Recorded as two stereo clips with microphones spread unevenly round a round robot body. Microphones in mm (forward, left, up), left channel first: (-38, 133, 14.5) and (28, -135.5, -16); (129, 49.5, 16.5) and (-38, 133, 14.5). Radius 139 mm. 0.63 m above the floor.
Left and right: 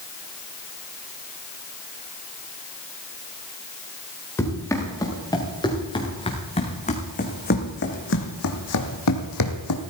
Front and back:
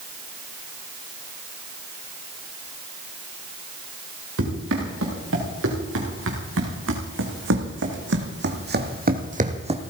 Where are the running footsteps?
175° right, 5 m; by 9.8 s 95° left, 2.0 m.